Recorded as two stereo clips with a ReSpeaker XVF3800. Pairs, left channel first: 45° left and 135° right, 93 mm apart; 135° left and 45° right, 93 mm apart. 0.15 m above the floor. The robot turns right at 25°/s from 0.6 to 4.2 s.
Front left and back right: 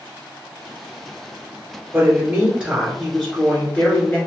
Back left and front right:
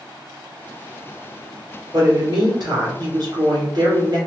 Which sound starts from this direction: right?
A woman speaking, at 1.9 s.